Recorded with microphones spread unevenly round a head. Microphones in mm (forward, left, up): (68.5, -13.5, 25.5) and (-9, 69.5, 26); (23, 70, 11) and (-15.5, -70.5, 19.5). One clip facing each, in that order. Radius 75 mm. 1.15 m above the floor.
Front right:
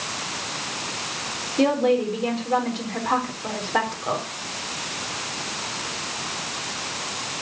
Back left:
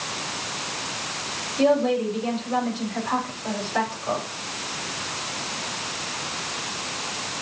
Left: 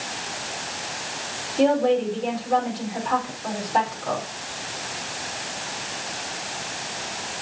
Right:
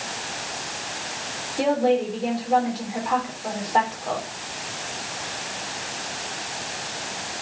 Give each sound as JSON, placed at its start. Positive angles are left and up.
{"t": 1.6, "sound": "a woman speaking", "azimuth_deg": -20, "distance_m": 4.0}